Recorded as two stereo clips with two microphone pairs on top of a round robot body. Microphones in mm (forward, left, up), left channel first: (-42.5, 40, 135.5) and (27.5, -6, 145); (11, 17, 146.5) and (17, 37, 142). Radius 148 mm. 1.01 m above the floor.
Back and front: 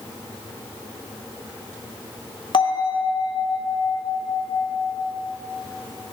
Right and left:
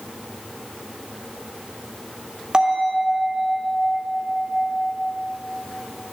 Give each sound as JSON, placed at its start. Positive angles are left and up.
{"t": 2.5, "sound": "a bell", "azimuth_deg": 120, "distance_m": 2.0}